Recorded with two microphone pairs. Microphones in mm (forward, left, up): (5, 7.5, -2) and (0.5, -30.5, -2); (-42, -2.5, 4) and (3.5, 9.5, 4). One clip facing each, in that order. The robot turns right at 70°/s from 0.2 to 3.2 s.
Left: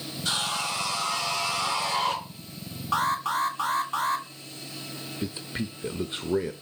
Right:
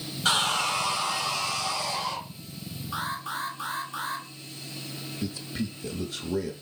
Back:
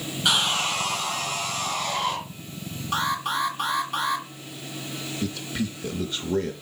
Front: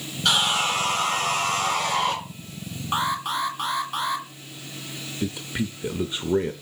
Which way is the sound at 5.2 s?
65° left.